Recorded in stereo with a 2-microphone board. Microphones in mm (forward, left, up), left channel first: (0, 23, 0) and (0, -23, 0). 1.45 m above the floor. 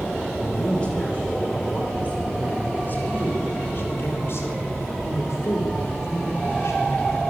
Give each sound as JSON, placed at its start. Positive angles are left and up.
{"t": 0.4, "sound": "a man speaking", "side_deg": 25, "distance_m": 7.5}